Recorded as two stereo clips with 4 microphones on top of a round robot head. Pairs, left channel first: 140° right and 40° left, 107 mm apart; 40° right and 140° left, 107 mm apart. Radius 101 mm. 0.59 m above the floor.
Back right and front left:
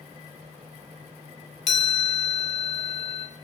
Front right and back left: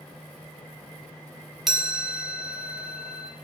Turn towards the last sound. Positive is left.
turn(degrees=-135)